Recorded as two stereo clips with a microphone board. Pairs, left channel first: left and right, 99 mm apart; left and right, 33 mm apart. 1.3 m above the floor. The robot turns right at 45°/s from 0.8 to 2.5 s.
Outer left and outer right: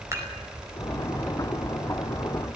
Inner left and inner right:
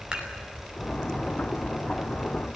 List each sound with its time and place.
0.1 s dishes clattering: 30° right (ahead or behind), 4.5 m